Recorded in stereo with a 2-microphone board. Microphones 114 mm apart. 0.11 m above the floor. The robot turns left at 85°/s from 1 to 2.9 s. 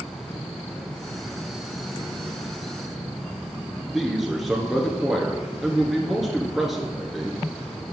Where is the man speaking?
Centre (ahead or behind), 1.2 m.